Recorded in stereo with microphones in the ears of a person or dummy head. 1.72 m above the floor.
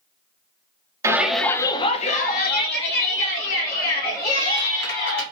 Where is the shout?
10° right (ahead or behind), 0.7 m; by 5.2 s 85° left, 2.5 m.